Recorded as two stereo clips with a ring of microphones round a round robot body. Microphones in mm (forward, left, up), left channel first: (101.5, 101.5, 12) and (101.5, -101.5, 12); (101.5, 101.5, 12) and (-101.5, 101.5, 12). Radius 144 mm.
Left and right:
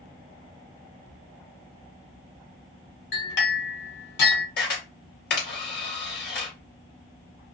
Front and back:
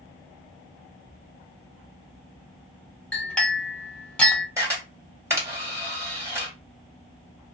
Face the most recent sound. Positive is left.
turn(degrees=105)